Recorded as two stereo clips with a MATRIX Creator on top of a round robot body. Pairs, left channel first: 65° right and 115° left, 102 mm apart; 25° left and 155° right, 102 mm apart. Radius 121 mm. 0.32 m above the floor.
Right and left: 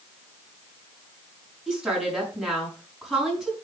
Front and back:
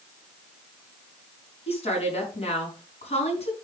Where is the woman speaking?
30° left, 5 m.